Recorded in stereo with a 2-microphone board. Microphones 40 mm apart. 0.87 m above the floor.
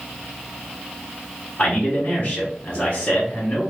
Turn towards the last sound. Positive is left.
turn(degrees=35)  # may be behind; listen again after turning